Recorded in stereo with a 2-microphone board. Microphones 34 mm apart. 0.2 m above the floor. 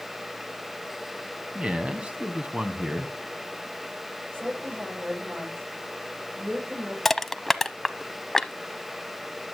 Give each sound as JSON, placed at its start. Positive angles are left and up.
{"t": 1.6, "sound": "a man speaking", "side_deg": -35, "distance_m": 1.3}
{"t": 4.3, "sound": "a woman speaking", "side_deg": -70, "distance_m": 9.5}
{"t": 7.0, "sound": "crushing", "side_deg": 10, "distance_m": 0.7}